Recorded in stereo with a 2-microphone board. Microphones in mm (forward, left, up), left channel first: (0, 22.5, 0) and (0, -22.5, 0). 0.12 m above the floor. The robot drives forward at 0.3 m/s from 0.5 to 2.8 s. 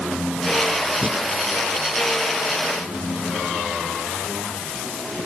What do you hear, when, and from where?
1.0 s breathing: 30° right (ahead or behind), 2 m